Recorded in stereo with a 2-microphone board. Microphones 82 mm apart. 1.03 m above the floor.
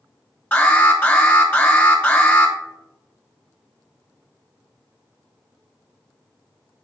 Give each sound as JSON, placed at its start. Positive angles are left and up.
{"t": 0.5, "sound": "an alarm", "side_deg": 15, "distance_m": 1.6}